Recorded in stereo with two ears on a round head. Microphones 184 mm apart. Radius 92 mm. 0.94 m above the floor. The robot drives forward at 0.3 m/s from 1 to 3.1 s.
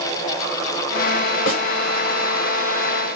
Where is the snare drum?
65° left (ahead or behind), 1.3 m.